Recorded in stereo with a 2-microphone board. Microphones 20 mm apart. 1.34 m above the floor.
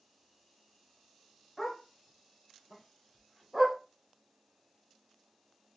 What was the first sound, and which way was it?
A dog barking, 10° left (ahead or behind).